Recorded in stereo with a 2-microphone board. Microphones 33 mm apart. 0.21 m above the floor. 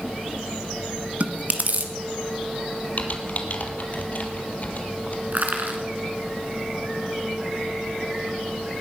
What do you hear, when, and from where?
1.2 s chewing: 50° right (ahead or behind), 1.2 m
3.0 s typing on a keyboard: 45° left (ahead or behind), 1.9 m
5.3 s crushing: 55° right (ahead or behind), 2.5 m